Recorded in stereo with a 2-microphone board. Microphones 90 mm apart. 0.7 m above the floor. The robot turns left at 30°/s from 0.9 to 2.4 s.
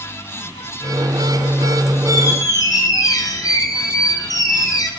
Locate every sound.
2.1 s a squeak: 35° left (ahead or behind), 2.5 m; by 4.9 s 45° left (ahead or behind), 2.5 m